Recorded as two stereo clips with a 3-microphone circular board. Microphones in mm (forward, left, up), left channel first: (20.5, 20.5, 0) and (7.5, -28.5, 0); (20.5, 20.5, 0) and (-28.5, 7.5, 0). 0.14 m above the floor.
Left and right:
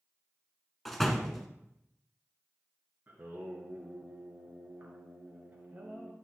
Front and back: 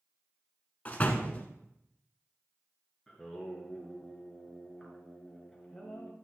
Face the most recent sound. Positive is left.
turn(degrees=-70)